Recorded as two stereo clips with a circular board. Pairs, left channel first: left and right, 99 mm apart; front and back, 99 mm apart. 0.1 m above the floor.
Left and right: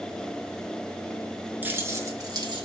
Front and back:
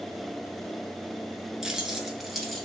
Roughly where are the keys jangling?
Right.